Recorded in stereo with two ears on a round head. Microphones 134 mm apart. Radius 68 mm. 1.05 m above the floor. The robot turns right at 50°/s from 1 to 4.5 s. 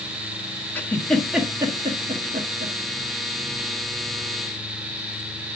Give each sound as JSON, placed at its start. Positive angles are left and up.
{"t": 0.8, "sound": "a giggle", "side_deg": 10, "distance_m": 1.2}